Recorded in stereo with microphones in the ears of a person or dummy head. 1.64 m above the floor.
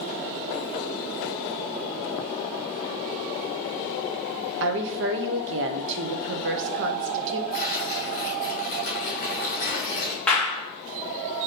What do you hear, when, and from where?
4.6 s a woman speaking: 65° right (ahead or behind), 0.6 m
7.5 s tearing paper: 40° left (ahead or behind), 2 m
10.3 s a clap: 10° left (ahead or behind), 1.2 m